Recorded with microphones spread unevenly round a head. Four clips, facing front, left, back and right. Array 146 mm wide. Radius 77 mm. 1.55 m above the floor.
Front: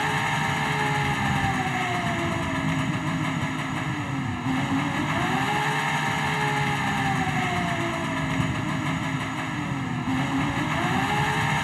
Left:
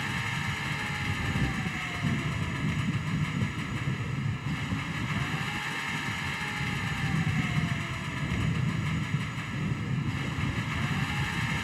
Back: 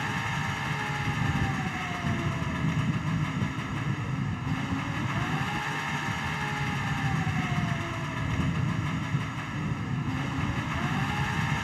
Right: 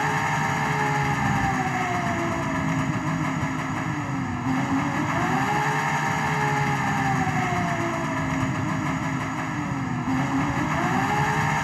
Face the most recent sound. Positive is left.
turn(degrees=-55)